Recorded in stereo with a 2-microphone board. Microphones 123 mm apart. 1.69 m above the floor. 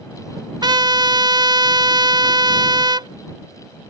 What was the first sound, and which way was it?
A trumpet, 35° right (ahead or behind).